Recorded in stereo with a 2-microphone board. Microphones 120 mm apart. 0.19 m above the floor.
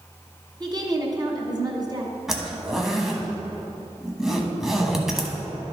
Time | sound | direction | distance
0.6 | a woman speaking | 35° right (ahead or behind) | 1.4 m
2.3 | a zipper | 5° right (ahead or behind) | 1.0 m